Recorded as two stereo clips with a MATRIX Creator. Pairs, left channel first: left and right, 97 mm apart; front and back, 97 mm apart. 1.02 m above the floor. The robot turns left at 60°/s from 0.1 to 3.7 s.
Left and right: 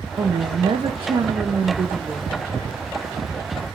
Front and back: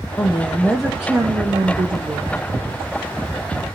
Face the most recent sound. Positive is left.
turn(degrees=100)